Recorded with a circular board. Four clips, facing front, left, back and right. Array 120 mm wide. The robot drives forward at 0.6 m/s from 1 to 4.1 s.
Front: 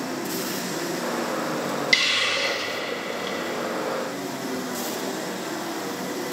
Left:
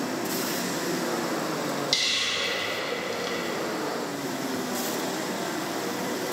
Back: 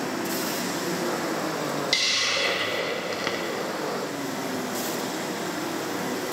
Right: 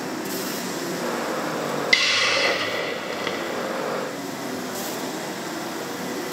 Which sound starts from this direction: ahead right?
A hiss, at 1.9 s.